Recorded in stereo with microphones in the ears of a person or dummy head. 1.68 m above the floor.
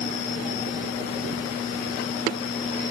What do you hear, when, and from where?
Only background noise.